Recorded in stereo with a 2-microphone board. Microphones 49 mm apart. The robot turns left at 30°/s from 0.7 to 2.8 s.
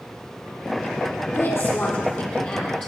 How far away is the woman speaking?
About 4 m.